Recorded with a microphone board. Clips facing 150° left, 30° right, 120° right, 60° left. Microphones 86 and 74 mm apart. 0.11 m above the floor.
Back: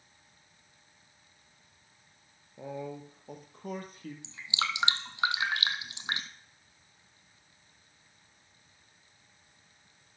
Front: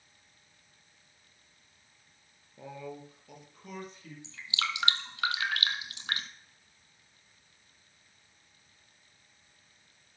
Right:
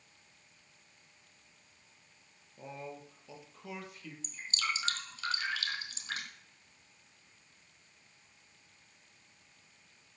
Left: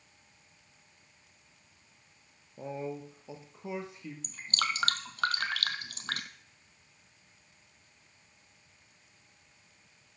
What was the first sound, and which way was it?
A man speaking, 90° left.